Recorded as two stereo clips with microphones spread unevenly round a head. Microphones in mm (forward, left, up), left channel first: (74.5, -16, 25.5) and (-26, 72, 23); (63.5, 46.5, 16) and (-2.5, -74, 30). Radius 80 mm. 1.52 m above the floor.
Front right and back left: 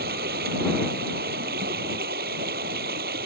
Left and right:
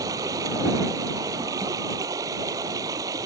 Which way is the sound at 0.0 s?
170° left.